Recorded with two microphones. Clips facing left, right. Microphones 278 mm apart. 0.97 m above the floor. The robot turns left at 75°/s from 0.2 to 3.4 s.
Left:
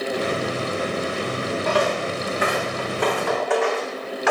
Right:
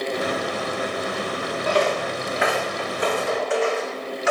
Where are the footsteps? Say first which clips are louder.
Right 2 dB; 5° right (ahead or behind), 3.5 m; by 4.3 s 65° left (ahead or behind), 2 m.